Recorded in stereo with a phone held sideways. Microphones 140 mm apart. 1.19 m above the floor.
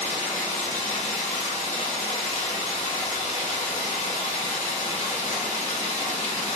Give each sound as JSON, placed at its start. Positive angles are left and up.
{"t": 0.0, "sound": "running water", "side_deg": 75, "distance_m": 1.5}